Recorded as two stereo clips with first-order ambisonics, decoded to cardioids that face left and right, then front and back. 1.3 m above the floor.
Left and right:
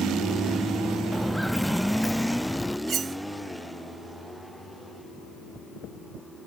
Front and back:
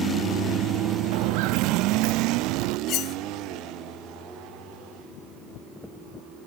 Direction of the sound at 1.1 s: 175° right.